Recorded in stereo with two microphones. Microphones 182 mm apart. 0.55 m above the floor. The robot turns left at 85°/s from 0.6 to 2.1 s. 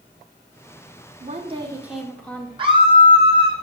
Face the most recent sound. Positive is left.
turn(degrees=-25)  # may be behind; listen again after turning